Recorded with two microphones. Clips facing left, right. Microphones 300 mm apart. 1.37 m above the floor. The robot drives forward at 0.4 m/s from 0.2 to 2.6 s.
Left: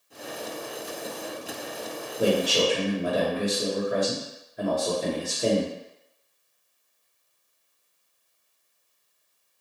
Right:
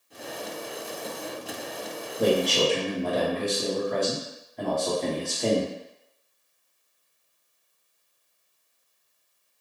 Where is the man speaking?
10° left (ahead or behind), 1.0 m.